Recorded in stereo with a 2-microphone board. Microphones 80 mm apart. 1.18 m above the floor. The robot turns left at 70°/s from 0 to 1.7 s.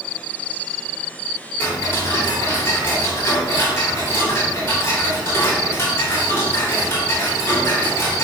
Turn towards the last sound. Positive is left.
turn(degrees=30)  # may be behind; listen again after turning